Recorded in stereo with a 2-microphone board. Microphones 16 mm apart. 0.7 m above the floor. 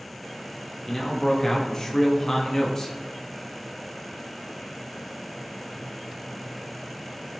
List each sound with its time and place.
0.9 s a man speaking: 30° left (ahead or behind), 0.5 m